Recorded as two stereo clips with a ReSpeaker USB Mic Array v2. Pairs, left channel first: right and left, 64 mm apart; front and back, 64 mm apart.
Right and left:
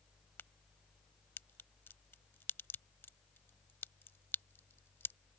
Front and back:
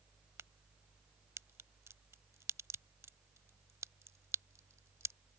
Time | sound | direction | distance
0.4 | a crack | 140° right | ?